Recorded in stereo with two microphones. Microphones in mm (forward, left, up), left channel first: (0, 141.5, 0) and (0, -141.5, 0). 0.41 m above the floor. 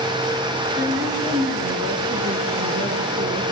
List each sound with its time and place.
0.8 s a woman speaking: 40° right (ahead or behind), 8 m